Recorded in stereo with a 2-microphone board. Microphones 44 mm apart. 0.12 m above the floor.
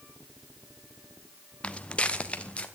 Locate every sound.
1.6 s footsteps: 25° left (ahead or behind), 1.0 m